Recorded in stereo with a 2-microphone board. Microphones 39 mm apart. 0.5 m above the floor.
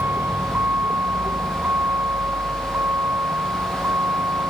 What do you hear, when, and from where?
0.0 s a vehicle: 80° right; by 4.5 s 90° right